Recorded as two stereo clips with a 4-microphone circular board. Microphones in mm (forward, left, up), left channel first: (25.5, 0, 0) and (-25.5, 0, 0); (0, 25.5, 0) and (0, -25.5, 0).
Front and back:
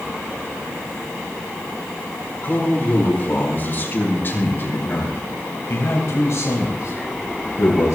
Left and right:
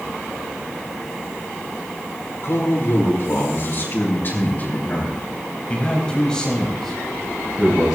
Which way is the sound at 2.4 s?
60° left.